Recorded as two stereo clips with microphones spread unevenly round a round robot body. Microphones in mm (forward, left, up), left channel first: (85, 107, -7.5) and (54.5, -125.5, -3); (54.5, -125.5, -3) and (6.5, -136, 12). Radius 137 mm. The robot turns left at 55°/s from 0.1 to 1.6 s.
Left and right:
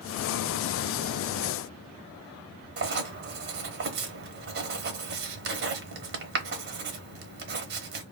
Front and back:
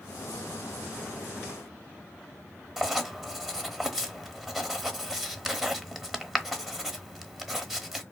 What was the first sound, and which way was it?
Writing, 105° right.